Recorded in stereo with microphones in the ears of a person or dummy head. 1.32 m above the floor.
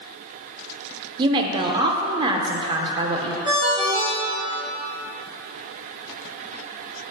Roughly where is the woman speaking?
Right.